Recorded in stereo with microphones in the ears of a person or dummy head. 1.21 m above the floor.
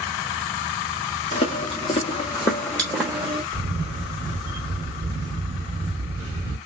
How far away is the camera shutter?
About 0.9 m.